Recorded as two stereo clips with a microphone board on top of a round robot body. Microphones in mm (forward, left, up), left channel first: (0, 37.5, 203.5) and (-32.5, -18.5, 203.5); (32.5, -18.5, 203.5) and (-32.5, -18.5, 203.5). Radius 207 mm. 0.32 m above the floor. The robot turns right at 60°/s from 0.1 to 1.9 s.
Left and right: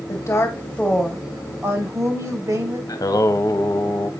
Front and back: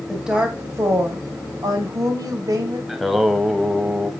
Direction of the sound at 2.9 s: 95° left.